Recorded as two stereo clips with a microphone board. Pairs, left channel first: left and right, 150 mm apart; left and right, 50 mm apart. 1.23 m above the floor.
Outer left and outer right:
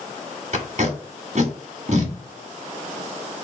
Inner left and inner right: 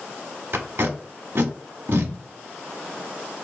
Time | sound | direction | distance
0.5 | tape being pulled | 55° right (ahead or behind) | 1.1 m